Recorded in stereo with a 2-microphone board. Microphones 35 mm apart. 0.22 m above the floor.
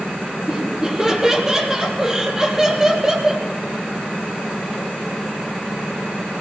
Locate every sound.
0.5 s laughter: 15° right (ahead or behind), 6 m